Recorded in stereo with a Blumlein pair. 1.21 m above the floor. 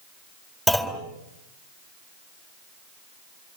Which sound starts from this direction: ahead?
A clunk, at 0.7 s.